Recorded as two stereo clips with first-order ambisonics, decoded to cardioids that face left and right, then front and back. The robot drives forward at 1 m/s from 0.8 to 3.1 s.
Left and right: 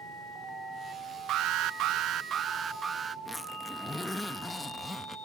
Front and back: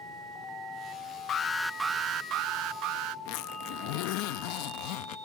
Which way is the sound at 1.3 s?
55° right.